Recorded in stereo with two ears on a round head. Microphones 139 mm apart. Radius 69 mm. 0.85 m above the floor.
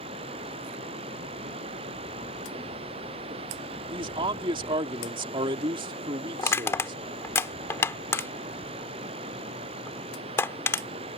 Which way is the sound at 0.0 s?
35° right (ahead or behind).